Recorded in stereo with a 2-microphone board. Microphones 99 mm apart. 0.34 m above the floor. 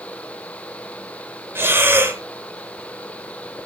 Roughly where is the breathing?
Right.